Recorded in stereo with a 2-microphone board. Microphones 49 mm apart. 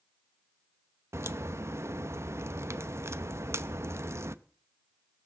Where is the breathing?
I don't hear breathing.